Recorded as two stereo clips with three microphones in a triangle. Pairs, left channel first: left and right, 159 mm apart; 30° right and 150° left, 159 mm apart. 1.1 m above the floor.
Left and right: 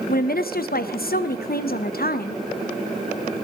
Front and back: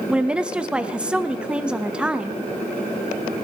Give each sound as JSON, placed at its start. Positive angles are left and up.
{"t": 0.1, "sound": "a woman speaking", "azimuth_deg": 65, "distance_m": 0.8}